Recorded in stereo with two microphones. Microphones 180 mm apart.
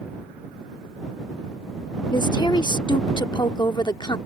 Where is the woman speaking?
25° left (ahead or behind).